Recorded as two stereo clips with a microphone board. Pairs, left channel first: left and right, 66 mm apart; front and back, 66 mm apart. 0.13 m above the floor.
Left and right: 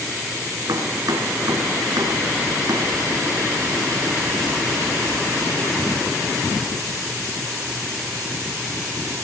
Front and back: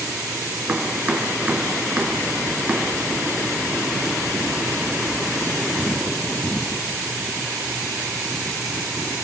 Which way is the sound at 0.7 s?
105° right.